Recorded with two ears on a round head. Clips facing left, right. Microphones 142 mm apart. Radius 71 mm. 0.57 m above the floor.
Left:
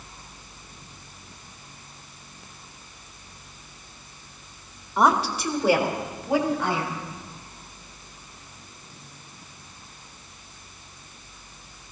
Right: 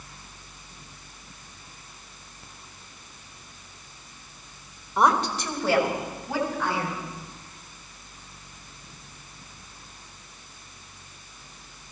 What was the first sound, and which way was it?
A woman speaking, centre (ahead or behind).